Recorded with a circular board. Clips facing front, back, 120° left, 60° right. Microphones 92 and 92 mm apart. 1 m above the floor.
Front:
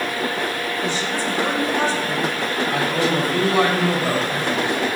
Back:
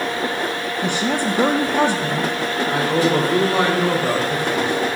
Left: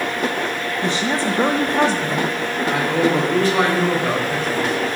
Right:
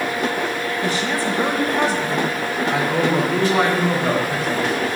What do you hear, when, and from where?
0.8 s a woman speaking: straight behind, 0.7 m
2.7 s a man speaking: 150° right, 3.5 m